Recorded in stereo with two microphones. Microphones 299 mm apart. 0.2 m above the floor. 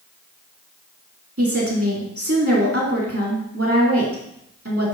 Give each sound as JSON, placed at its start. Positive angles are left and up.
{"t": 1.4, "sound": "a woman speaking", "side_deg": -50, "distance_m": 2.5}